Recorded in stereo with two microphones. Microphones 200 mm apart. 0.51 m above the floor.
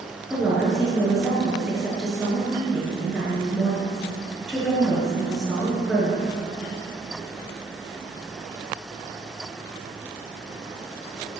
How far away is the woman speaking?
About 7 m.